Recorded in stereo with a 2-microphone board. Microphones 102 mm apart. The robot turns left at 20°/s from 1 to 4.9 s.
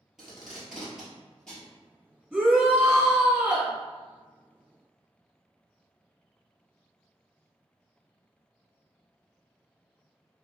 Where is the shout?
5° right (ahead or behind), 1.2 m; by 3.7 s 15° right (ahead or behind), 1.2 m.